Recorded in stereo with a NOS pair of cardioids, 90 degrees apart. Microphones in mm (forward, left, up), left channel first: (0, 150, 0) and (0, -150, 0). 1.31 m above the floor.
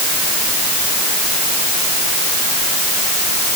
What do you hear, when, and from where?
Only background noise.